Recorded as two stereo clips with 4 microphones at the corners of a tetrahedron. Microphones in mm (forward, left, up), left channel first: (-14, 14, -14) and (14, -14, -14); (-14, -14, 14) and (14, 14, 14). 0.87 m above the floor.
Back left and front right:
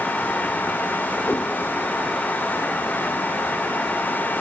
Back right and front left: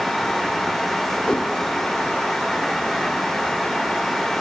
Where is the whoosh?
160° left, 0.9 m.